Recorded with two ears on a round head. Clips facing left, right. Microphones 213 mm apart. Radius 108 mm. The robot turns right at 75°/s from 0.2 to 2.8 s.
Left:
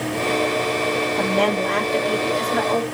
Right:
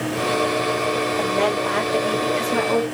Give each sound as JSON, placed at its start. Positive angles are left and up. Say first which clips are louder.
{"t": 1.2, "sound": "a woman speaking", "louder": "left 3 dB", "azimuth_deg": 115, "distance_m": 1.9}